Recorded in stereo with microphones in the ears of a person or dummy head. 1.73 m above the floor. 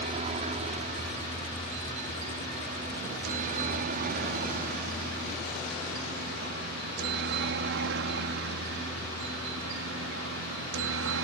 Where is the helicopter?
35° right (ahead or behind); by 11.2 s 70° right (ahead or behind).